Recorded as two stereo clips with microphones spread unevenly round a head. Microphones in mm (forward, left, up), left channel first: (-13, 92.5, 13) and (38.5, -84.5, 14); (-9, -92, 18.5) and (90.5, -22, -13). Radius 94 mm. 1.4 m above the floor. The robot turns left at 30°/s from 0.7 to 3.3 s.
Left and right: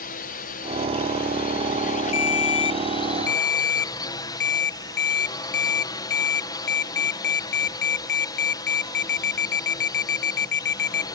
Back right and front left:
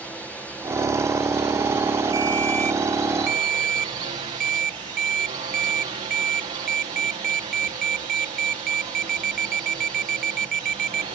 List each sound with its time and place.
0.0 s a drone: 120° left; by 11.2 s 45° left
2.1 s a ringtone: 110° left; by 11.1 s 75° left